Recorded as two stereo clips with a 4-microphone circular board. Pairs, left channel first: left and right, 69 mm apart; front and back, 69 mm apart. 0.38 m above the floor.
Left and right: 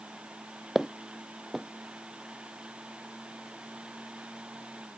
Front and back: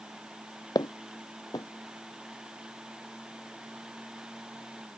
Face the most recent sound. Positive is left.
turn(degrees=-5)